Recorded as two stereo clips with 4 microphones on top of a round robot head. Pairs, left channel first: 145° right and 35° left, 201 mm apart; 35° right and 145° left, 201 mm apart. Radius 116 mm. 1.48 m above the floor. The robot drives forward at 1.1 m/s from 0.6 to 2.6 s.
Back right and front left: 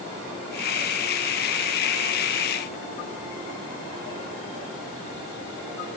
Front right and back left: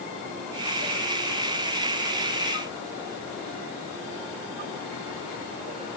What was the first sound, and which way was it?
Only background noise.